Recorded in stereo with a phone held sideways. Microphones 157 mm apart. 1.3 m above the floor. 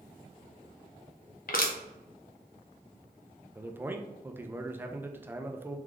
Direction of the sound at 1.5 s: 65° left (ahead or behind).